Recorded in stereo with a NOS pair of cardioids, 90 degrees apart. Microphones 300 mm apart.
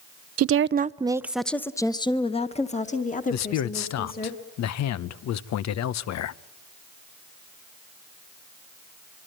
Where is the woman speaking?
55° right, 0.6 m; by 4.3 s 30° left, 3 m.